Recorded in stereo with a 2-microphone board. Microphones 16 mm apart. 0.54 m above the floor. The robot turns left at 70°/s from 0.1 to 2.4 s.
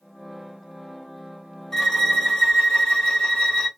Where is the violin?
140° left, 1.0 m; by 3.7 s 90° left, 1.0 m.